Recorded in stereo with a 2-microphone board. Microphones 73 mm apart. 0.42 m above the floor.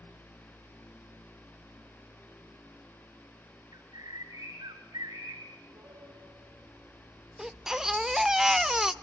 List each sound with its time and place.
3.7 s a bird: 65° right (ahead or behind), 3.5 m
5.6 s a piano: 55° right (ahead or behind), 6.5 m
7.4 s a baby crying: 5° right (ahead or behind), 0.7 m